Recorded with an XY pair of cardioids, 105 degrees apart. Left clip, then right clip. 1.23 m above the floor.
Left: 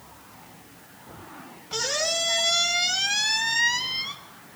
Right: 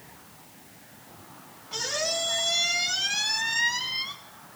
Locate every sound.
1.7 s a squeak: 40° left, 1.2 m